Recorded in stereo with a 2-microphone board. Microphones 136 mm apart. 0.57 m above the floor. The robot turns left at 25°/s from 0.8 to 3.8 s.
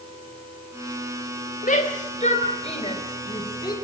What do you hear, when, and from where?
1.6 s a shout: 70° left (ahead or behind), 3 m; by 3.8 s 30° left (ahead or behind), 3 m